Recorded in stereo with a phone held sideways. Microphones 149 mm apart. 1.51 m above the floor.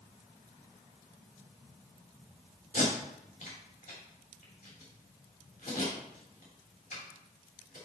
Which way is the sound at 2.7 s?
65° left (ahead or behind).